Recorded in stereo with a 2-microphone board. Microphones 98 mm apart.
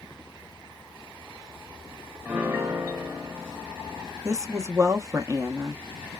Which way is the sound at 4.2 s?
30° right (ahead or behind).